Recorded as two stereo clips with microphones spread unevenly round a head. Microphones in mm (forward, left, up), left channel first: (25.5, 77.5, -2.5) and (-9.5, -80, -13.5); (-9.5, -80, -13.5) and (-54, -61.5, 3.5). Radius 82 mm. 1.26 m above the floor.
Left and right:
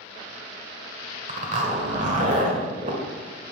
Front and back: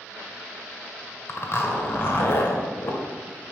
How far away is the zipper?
About 1.5 m.